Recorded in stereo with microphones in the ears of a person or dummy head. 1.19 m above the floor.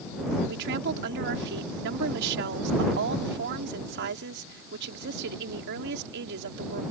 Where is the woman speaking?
60° right (ahead or behind).